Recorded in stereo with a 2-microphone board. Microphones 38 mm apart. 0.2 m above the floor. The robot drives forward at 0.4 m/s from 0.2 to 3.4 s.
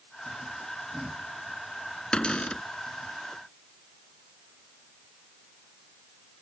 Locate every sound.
2.1 s a cupboard door: 30° left (ahead or behind); by 2.6 s 25° left (ahead or behind)